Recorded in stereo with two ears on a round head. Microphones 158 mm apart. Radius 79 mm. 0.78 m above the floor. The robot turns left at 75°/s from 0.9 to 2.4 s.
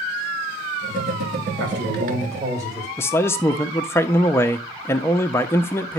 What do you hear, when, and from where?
1.6 s a man speaking: 100° right, 4 m; by 2.9 s 160° right, 4 m
3.0 s a man speaking: 15° left (ahead or behind), 0.7 m